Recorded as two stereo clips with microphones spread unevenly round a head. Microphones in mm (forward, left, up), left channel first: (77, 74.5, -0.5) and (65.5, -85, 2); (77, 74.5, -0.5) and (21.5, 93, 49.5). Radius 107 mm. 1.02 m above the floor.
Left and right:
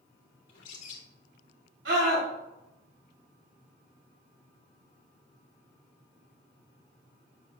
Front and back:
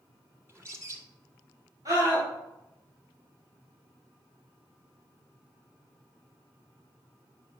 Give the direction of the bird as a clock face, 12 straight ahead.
9 o'clock.